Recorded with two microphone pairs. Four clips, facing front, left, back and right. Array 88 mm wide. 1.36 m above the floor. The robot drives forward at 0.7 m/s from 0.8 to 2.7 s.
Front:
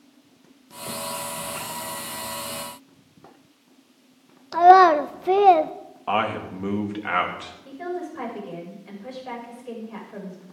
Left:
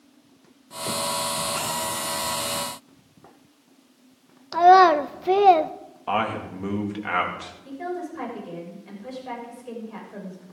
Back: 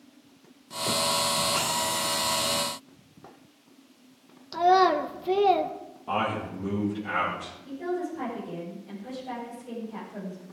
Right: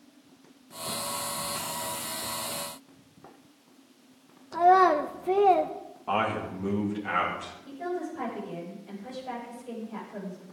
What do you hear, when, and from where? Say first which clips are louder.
4.5 s a child speaking: left 6 dB, front 8 dB; 40° left, 0.6 m
6.1 s a man speaking: left 3 dB, front 4 dB; 35° left, 2.5 m
7.7 s a woman speaking: left 2 dB, even; 35° left, 6.5 m